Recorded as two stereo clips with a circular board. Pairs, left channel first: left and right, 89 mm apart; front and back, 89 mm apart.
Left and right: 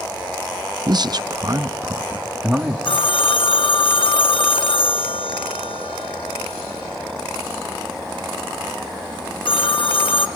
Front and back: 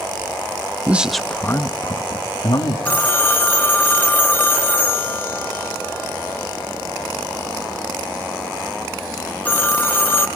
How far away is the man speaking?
About 0.6 m.